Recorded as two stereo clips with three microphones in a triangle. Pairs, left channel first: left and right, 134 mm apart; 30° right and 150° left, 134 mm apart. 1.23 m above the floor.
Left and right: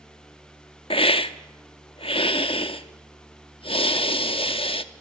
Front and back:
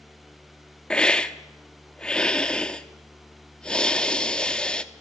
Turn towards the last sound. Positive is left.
turn(degrees=50)